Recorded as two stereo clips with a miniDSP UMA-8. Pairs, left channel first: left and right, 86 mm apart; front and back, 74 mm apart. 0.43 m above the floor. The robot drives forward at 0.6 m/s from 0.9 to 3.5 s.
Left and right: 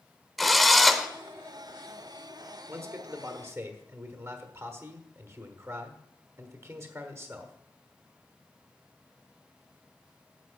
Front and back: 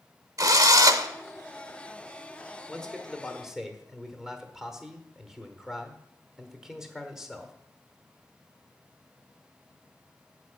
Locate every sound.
0.4 s a drill: straight behind, 0.8 m
2.7 s a man speaking: 65° right, 1.3 m; by 7.5 s 100° right, 1.3 m